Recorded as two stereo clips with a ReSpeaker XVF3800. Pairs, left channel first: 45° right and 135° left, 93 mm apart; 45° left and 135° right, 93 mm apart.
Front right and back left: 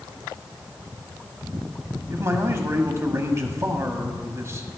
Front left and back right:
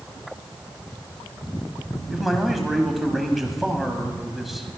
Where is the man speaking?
140° left, 1.1 m.